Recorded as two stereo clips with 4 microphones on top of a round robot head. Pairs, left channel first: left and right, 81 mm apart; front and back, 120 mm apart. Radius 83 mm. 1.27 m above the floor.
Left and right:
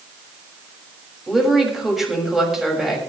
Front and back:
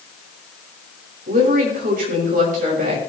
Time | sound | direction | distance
1.3 | a woman speaking | 175° right | 6.5 m